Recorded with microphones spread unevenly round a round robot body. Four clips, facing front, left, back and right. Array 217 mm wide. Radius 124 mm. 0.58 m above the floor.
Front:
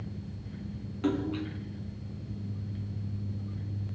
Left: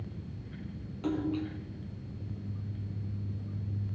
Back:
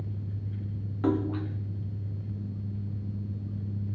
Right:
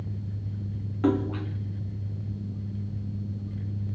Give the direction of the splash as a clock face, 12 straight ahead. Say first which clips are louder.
Right 6 dB, back 2 dB; 3 o'clock.